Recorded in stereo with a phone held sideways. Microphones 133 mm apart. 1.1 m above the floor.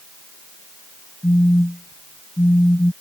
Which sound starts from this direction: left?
A phone buzzing, at 1.2 s.